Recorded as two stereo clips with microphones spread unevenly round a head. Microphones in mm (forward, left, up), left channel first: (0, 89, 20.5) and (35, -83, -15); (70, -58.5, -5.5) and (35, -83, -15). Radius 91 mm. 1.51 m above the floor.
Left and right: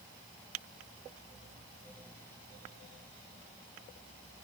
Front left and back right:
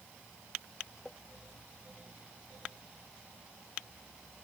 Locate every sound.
Only background noise.